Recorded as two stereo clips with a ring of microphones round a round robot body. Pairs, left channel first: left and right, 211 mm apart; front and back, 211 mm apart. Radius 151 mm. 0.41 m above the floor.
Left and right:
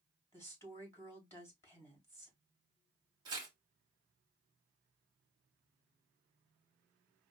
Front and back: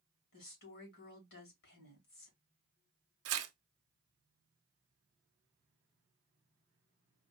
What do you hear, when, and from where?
0.3 s a woman speaking: 15° left, 4 m
3.2 s tearing paper: 165° right, 0.6 m